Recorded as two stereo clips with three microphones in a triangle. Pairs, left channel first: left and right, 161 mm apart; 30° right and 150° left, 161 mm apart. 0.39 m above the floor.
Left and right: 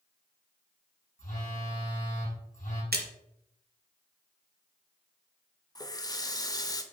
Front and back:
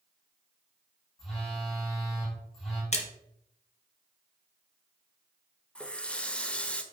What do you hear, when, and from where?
1.2 s a phone buzzing: 60° left, 3.5 m
2.9 s a splash: 80° right, 1.2 m
5.8 s a running tap: 45° left, 0.7 m